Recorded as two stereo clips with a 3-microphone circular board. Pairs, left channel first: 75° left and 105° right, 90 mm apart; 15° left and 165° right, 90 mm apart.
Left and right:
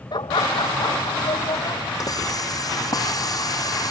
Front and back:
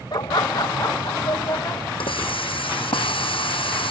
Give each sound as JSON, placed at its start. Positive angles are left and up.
{"t": 0.1, "sound": "laughter", "azimuth_deg": 50}
{"t": 2.0, "sound": "a hiss", "azimuth_deg": 25}